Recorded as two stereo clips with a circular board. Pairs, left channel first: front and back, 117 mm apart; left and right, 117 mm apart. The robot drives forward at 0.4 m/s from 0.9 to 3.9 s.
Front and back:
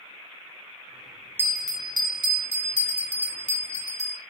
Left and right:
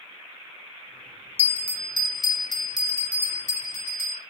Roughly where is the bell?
Left.